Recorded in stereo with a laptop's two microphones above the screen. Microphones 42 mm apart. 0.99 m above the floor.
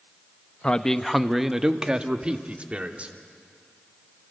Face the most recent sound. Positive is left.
turn(degrees=-35)  # may be behind; listen again after turning